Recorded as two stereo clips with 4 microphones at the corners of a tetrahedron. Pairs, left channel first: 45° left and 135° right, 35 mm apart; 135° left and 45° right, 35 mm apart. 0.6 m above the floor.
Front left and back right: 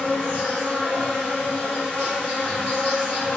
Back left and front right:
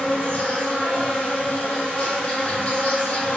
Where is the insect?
95° left, 2.0 m.